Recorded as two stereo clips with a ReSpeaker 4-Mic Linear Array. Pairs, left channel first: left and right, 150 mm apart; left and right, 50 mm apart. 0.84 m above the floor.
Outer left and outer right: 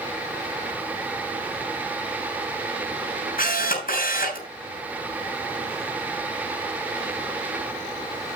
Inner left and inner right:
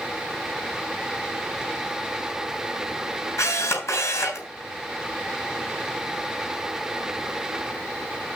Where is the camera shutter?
70° left (ahead or behind), 6 m.